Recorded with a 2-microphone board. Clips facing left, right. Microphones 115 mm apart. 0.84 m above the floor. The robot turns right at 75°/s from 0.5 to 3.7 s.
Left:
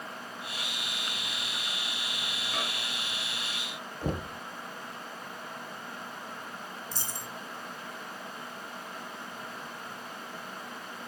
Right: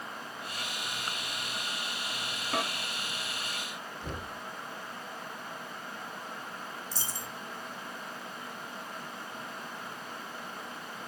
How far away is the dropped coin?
About 2.5 m.